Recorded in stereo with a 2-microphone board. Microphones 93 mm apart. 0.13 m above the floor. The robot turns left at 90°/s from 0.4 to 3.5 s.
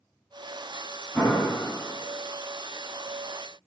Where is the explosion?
25° left, 1.2 m; by 1.5 s 10° right, 1.2 m.